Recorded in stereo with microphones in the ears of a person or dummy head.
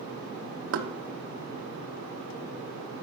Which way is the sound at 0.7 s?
70° right (ahead or behind).